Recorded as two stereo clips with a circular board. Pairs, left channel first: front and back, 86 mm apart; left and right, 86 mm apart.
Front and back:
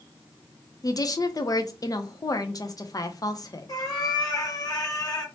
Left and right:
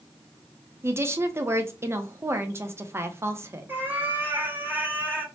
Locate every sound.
0.8 s a woman speaking: 35° right, 0.5 m
3.7 s a cat meowing: 25° right, 0.9 m